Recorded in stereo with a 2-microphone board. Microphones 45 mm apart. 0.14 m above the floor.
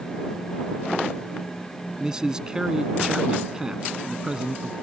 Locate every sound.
2.0 s a man speaking: 15° right (ahead or behind)